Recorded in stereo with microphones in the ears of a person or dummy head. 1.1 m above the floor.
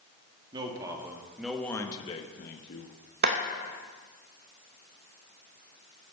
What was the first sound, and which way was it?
A man speaking, 25° right (ahead or behind).